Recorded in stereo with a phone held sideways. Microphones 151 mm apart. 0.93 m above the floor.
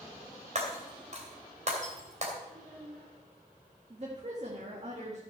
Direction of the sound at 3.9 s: 45° right (ahead or behind).